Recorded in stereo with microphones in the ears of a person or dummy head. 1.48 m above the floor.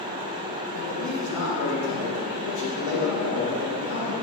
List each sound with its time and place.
0.7 s a man speaking: 70° left (ahead or behind), 2.5 m